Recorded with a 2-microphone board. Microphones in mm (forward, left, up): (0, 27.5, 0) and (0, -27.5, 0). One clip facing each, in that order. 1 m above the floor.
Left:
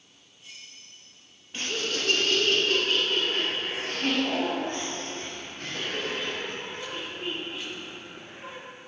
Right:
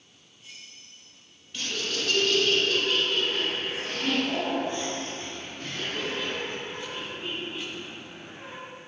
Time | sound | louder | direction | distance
1.5 | laughter | left 1 dB | 30° left (ahead or behind) | 1.1 m